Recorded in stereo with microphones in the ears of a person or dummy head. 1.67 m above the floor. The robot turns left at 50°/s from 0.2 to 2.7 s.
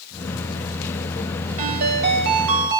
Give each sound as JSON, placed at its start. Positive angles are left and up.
{"t": 1.6, "sound": "a ringtone", "azimuth_deg": -45, "distance_m": 4.0}